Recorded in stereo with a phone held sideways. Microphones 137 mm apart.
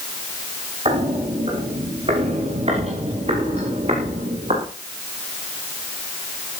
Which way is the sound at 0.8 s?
50° right (ahead or behind).